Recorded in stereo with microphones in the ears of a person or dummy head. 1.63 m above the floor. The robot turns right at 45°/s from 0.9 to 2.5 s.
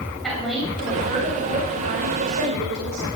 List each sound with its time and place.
0.2 s a woman speaking: straight behind, 8 m; by 3.1 s 110° right, 8 m